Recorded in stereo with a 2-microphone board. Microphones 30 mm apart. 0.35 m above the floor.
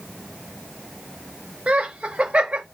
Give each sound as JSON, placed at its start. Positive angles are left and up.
{"t": 1.7, "sound": "laughter", "side_deg": -45, "distance_m": 1.1}